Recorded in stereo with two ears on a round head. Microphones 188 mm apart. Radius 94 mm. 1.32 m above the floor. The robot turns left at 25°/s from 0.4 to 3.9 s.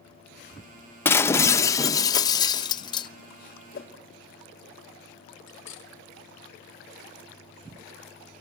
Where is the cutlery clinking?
60° left (ahead or behind), 1.1 m.